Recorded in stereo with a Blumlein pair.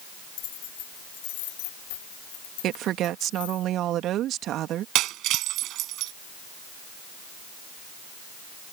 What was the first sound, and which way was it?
Keys jangling, 35° left.